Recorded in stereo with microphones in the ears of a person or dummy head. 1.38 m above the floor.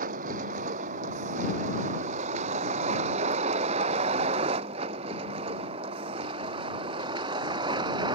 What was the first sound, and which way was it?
A vehicle, 55° right (ahead or behind).